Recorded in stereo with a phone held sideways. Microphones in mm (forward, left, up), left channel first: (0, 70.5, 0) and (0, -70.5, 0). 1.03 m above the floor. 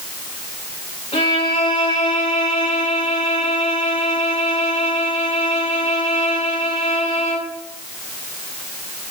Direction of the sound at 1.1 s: 45° left (ahead or behind).